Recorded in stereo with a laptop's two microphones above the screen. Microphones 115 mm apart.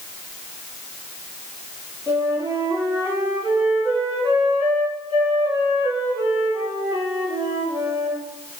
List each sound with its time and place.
2.1 s a flute: 40° right (ahead or behind), 2 m